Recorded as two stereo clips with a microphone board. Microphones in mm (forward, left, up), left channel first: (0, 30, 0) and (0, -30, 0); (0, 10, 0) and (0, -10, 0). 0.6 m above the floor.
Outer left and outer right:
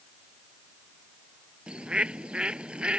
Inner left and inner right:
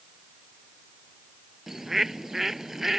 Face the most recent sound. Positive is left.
turn(degrees=-15)  # may be behind; listen again after turning